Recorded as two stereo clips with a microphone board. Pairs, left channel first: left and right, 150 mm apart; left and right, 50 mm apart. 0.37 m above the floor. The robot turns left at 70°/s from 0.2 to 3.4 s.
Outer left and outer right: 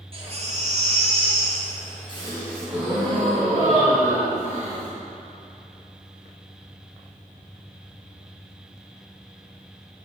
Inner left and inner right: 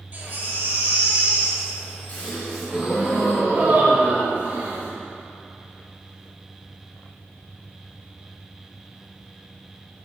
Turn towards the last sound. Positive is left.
turn(degrees=-55)